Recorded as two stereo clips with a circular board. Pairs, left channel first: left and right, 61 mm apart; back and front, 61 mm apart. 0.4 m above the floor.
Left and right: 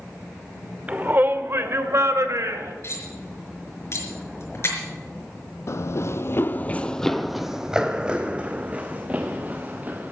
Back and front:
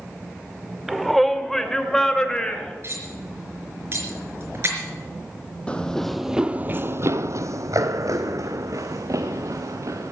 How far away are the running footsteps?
About 0.7 m.